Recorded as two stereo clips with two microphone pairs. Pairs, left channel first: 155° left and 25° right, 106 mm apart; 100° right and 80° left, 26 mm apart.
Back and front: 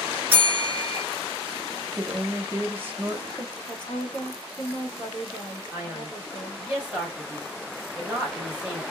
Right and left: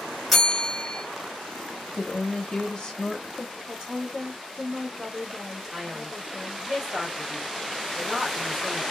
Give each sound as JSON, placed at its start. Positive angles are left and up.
{"t": 0.3, "sound": "a bell", "azimuth_deg": 10, "distance_m": 1.1}
{"t": 1.9, "sound": "a woman speaking", "azimuth_deg": -80, "distance_m": 0.7}
{"t": 3.7, "sound": "a woman speaking", "azimuth_deg": 130, "distance_m": 1.1}
{"t": 5.7, "sound": "a man speaking", "azimuth_deg": 35, "distance_m": 1.1}